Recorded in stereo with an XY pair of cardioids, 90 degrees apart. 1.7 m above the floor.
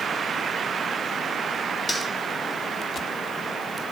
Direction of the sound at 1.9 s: 20° left.